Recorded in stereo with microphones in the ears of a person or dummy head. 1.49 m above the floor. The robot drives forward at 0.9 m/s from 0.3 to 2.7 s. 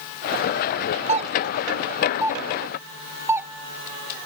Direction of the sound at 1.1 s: 30° right (ahead or behind).